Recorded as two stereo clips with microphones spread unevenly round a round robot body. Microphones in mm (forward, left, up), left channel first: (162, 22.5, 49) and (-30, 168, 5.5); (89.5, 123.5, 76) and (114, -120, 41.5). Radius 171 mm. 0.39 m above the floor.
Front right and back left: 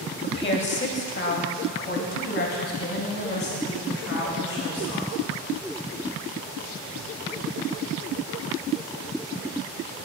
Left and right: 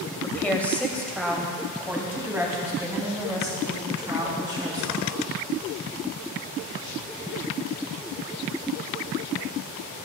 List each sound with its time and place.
0.2 s a woman speaking: 10° left, 2.5 m; by 5.2 s 10° right, 5 m